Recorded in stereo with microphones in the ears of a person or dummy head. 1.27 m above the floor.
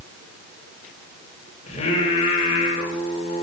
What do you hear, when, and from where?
1.7 s singing: 35° left (ahead or behind), 4.5 m